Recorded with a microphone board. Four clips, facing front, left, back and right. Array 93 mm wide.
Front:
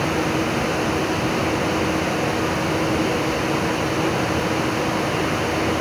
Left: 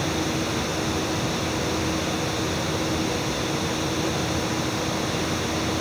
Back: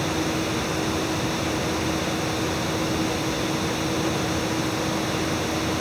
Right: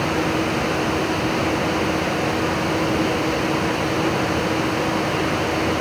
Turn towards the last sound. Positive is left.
No sound to turn to.